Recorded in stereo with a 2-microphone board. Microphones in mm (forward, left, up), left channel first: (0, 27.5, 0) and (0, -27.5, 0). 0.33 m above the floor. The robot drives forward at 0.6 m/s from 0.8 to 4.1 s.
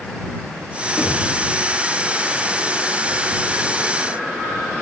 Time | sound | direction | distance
1.0 | knocking | 15° left (ahead or behind) | 6 m